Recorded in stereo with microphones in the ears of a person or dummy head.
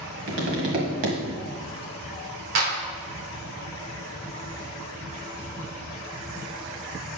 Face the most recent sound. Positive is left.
turn(degrees=-60)  # may be behind; listen again after turning